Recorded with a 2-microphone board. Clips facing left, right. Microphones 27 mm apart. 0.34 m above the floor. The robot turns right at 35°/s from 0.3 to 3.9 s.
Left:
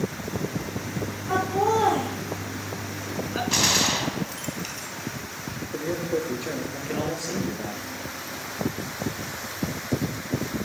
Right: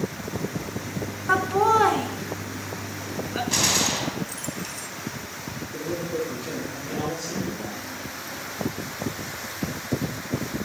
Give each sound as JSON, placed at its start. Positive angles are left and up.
{"t": 1.3, "sound": "laughter", "side_deg": -65, "distance_m": 3.5}
{"t": 3.5, "sound": "a gunshot", "side_deg": 15, "distance_m": 2.5}
{"t": 5.7, "sound": "a man speaking", "side_deg": 80, "distance_m": 6.0}